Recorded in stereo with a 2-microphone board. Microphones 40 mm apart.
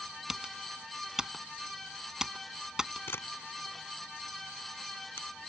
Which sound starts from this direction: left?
A camera shutter, at 3.1 s.